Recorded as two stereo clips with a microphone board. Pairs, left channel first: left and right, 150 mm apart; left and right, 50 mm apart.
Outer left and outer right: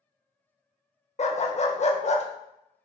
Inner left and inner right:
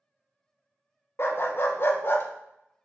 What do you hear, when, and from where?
1.2 s a dog barking: 50° left (ahead or behind), 0.5 m